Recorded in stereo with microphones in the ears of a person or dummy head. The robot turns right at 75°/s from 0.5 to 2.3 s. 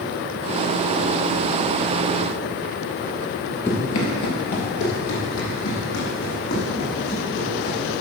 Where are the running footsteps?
10° left (ahead or behind), 1.8 m; by 7.8 s 70° left (ahead or behind), 7 m.